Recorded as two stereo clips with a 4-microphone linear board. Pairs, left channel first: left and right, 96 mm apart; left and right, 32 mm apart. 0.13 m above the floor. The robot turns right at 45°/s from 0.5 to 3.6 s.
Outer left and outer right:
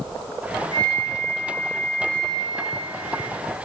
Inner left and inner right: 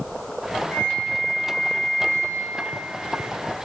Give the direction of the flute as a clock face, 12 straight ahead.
9 o'clock.